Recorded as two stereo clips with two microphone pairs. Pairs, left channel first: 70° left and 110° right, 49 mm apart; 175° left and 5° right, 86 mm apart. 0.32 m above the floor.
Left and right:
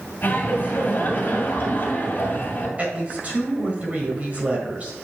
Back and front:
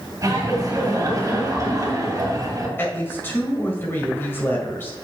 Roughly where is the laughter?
Ahead left.